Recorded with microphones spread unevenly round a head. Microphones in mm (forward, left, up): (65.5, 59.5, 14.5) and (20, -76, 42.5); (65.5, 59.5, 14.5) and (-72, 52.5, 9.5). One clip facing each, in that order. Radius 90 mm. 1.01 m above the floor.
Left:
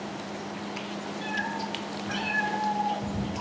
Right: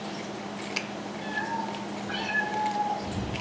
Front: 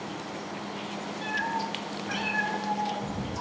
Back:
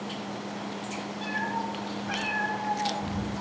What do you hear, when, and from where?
1.2 s a cat meowing: 120° left, 4 m; by 3.4 s 155° left, 5 m